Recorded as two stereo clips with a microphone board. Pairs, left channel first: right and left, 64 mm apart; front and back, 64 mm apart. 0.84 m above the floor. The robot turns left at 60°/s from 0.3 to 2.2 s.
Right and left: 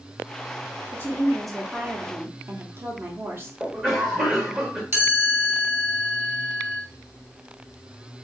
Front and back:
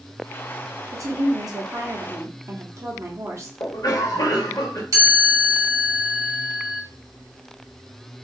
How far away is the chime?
About 2.5 m.